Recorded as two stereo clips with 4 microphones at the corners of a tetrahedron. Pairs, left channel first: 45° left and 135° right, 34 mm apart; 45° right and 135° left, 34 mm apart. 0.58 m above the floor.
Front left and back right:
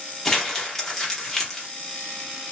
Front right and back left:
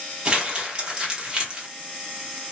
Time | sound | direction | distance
0.2 | crumpling | 110° left | 0.9 m